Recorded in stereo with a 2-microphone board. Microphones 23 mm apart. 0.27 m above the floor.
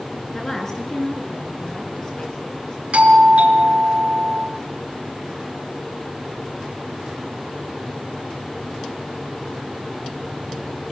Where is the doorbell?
65° right (ahead or behind), 5.5 m.